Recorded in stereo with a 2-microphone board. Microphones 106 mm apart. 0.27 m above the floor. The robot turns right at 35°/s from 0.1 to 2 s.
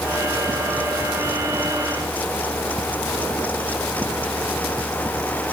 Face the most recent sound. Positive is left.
No sound to turn to.